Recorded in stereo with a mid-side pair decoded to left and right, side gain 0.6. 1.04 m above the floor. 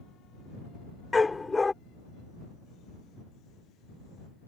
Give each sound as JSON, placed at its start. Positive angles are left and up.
{"t": 1.1, "sound": "a dog barking", "azimuth_deg": 15}